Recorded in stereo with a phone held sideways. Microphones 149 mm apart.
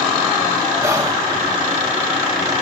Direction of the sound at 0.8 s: 20° right (ahead or behind).